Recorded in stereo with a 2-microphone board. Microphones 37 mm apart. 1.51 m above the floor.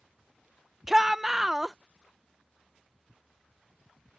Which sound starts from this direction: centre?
A shout, at 0.9 s.